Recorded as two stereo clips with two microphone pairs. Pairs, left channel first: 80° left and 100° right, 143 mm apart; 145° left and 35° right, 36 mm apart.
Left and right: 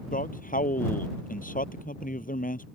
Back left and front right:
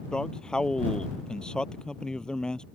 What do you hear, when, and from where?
0.1 s a man speaking: 80° left